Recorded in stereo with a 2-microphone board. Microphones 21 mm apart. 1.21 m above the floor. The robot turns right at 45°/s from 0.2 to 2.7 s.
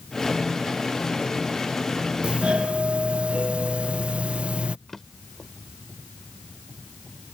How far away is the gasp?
No gasp in this recording.